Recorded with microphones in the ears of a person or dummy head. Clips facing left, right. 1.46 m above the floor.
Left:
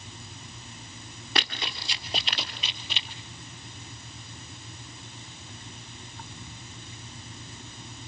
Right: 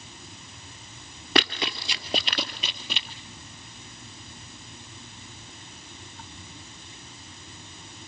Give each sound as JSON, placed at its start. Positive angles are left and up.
{"t": 1.4, "sound": "running footsteps", "side_deg": -40, "distance_m": 1.8}